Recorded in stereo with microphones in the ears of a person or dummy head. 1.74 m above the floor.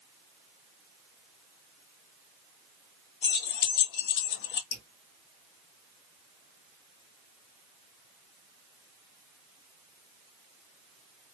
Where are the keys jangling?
60° left (ahead or behind), 1.4 m; by 4.6 s 50° left (ahead or behind), 0.9 m.